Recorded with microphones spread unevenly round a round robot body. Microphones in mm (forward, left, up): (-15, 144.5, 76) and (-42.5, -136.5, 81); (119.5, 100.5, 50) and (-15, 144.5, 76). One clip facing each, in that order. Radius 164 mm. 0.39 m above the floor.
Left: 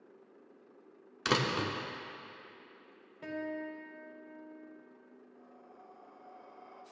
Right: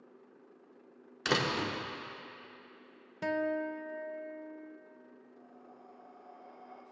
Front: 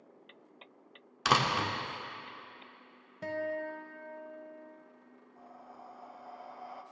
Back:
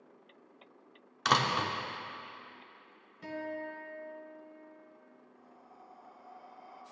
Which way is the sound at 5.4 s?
5° left.